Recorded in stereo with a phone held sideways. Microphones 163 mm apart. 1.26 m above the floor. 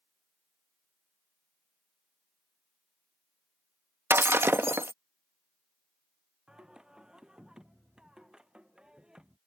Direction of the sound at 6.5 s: 5° right (ahead or behind).